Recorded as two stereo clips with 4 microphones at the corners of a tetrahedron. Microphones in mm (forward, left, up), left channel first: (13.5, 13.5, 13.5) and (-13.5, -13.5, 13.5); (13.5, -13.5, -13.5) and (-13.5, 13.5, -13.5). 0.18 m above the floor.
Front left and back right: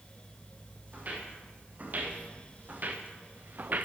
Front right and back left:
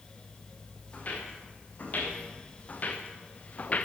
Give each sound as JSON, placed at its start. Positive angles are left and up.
{"t": 0.9, "sound": "footsteps", "azimuth_deg": -90, "distance_m": 5.0}